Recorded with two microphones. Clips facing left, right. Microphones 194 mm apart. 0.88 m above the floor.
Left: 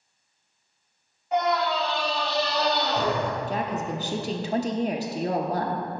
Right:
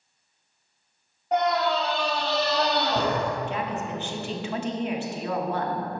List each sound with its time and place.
1.3 s a scream: 60° right (ahead or behind), 2.5 m; by 3.3 s 65° right (ahead or behind), 2.0 m
3.5 s a woman speaking: 40° left (ahead or behind), 0.7 m